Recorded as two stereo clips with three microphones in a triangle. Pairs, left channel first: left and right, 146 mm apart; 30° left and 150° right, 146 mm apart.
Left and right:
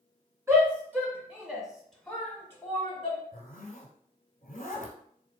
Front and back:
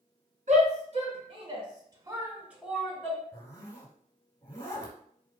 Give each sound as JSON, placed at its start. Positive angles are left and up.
{"t": 0.5, "sound": "a shout", "azimuth_deg": -160, "distance_m": 1.8}
{"t": 3.3, "sound": "a zipper", "azimuth_deg": 95, "distance_m": 1.0}